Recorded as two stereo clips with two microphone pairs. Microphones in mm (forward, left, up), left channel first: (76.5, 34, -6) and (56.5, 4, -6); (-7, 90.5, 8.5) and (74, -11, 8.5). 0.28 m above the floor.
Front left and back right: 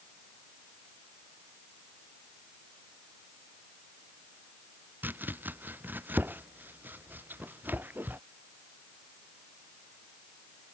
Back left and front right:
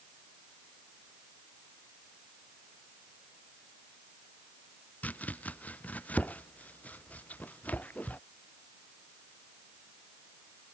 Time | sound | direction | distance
5.0 | chopping | 155° right | ?